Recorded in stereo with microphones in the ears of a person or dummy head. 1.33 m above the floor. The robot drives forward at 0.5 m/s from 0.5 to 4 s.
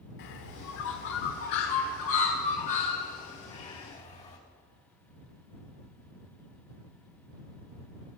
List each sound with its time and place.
0.2 s a bird: 60° left (ahead or behind), 1.5 m; by 4.4 s 35° left (ahead or behind), 2.5 m